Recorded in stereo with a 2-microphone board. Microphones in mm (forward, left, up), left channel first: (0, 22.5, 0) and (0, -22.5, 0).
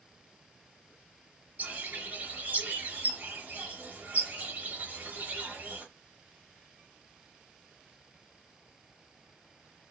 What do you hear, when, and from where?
1.6 s a bird: 40° right (ahead or behind), 1.1 m